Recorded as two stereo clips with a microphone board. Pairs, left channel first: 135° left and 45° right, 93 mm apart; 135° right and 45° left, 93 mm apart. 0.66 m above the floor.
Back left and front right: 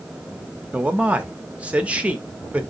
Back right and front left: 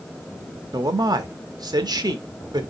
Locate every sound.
0.7 s a man speaking: 25° left, 0.7 m